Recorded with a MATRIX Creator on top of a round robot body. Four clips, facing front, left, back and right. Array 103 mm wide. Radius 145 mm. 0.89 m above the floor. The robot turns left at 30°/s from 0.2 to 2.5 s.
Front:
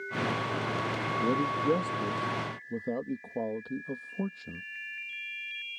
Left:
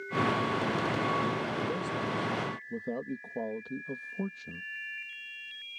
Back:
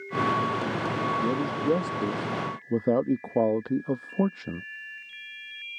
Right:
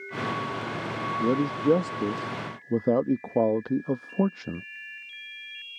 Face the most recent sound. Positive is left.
turn(degrees=-130)